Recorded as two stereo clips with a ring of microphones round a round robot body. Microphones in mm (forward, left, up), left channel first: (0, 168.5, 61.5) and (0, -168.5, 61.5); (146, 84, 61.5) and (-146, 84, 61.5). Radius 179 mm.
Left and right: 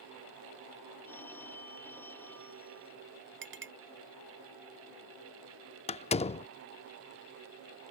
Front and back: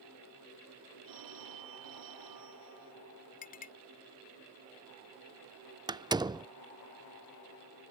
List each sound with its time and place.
1.1 s a phone ringing: 175° left
3.4 s a clink: 50° right
5.9 s a door slam: 130° left